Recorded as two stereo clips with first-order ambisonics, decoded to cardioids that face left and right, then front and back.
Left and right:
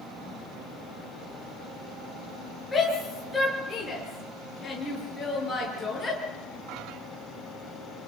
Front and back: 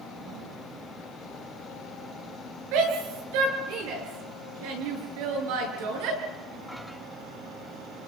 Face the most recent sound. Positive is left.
turn(degrees=175)